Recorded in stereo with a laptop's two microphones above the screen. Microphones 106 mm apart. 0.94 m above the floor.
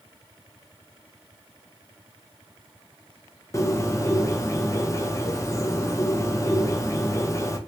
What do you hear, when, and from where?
3.5 s a bird: 30° left (ahead or behind), 0.5 m